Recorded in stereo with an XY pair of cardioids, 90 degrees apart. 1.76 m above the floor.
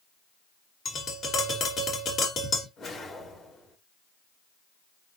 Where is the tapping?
70° left, 3 m.